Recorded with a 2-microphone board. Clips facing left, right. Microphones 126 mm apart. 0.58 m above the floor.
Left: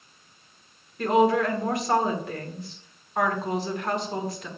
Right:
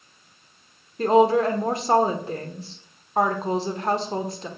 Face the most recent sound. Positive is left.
turn(degrees=-30)  # may be behind; listen again after turning